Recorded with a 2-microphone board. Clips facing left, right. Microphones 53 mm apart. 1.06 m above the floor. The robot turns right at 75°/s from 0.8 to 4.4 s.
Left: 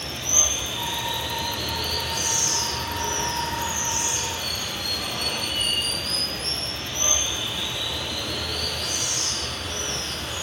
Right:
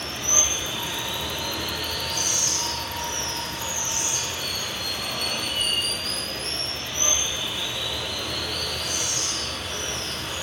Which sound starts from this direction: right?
Running water, at 0.0 s.